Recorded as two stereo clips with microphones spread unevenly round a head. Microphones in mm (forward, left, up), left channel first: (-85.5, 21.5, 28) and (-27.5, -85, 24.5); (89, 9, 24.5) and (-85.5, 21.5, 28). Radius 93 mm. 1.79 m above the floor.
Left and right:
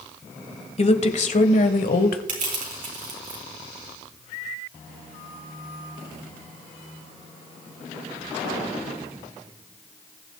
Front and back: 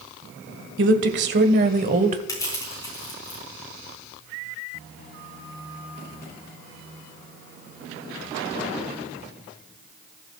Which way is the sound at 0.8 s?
155° left.